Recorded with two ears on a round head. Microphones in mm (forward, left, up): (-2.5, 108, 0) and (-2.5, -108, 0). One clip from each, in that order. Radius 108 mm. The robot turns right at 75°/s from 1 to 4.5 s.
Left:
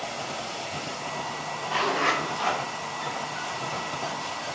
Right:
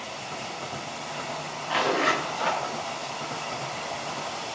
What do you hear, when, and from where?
1.7 s a zipper: 50° right, 1.2 m; by 2.6 s 25° left, 1.2 m